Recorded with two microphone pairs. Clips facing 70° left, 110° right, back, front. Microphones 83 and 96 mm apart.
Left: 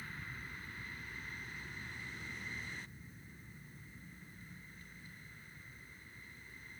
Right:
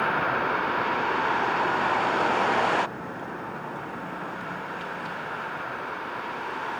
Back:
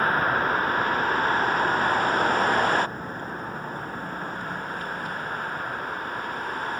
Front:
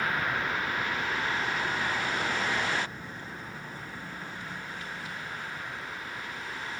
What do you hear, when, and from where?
0.0 s a vehicle: 130° right